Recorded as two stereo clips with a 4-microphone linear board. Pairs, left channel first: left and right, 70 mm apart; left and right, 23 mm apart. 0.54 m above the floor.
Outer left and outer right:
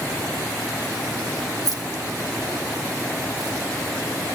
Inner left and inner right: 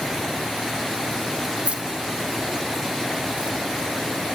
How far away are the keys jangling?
About 2.5 m.